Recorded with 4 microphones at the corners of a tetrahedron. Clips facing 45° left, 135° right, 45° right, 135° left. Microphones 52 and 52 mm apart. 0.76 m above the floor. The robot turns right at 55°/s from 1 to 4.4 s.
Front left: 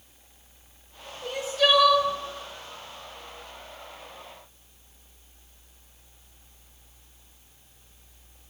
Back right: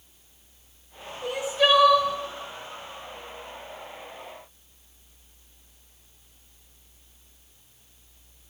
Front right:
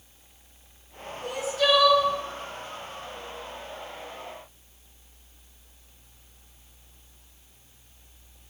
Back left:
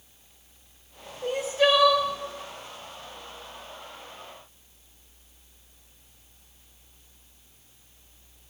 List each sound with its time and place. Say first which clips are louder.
1.2 s crying: back right 1 dB, back left 2 dB; 150° left, 0.7 m; by 2.1 s 160° right, 0.7 m